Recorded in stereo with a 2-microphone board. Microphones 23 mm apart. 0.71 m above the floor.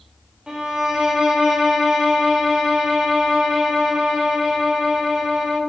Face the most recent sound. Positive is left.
turn(degrees=-25)  # may be behind; listen again after turning